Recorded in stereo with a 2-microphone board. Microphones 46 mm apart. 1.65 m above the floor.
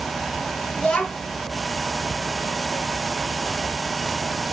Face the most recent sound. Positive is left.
turn(degrees=20)  # may be behind; listen again after turning